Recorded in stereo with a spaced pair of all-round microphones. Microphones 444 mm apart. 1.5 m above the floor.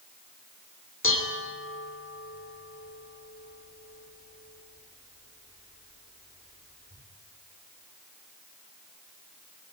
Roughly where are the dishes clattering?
Left.